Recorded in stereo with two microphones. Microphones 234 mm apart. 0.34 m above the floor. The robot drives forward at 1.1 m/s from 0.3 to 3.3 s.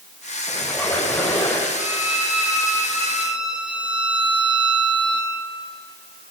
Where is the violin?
5° right (ahead or behind), 3 m.